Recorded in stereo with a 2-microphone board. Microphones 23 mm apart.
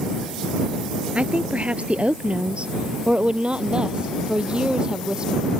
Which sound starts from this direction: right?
A woman speaking, at 1.1 s.